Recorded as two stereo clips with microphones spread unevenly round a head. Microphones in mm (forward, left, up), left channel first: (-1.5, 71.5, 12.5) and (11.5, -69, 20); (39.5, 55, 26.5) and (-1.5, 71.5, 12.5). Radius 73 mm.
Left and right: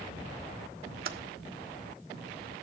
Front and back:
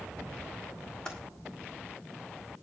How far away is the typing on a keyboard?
About 1.4 m.